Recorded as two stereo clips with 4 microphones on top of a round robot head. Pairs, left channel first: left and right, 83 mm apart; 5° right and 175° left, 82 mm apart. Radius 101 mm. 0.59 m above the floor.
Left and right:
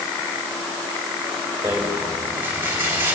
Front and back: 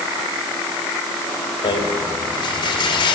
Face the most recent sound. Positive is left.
turn(degrees=-25)